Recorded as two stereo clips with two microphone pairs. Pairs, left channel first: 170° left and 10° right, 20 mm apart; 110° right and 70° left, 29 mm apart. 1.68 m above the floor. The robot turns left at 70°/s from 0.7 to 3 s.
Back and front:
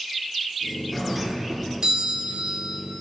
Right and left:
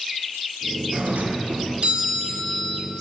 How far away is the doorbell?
About 2.5 m.